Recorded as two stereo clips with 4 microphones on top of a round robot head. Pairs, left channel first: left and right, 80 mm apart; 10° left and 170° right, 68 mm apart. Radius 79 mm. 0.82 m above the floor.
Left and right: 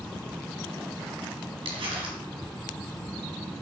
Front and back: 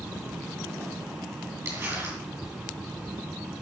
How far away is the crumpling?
About 3.5 m.